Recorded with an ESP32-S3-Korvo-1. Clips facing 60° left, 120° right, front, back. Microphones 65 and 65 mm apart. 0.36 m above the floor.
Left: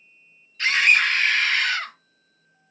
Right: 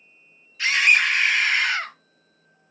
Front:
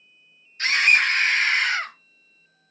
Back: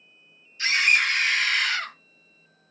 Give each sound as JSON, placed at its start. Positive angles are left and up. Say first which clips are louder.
{"t": 0.6, "sound": "a scream", "louder": "even, front 3 dB", "azimuth_deg": -35, "distance_m": 2.0}